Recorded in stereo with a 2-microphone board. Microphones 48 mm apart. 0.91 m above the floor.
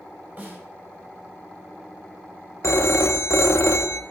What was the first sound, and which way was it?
A snare drum, 35° right (ahead or behind).